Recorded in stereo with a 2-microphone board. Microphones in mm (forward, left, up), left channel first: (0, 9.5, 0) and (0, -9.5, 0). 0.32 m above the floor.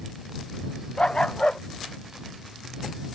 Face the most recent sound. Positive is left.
turn(degrees=50)  # may be behind; listen again after turning